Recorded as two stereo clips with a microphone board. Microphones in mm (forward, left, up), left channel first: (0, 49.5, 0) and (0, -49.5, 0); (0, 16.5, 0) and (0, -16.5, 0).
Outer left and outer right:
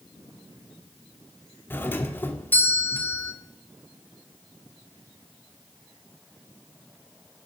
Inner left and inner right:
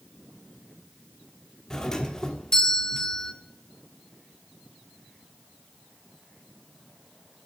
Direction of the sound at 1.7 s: 20° left (ahead or behind).